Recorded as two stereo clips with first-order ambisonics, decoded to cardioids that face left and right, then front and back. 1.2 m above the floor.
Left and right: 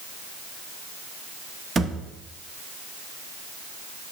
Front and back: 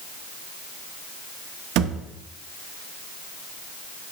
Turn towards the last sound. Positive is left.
turn(degrees=-160)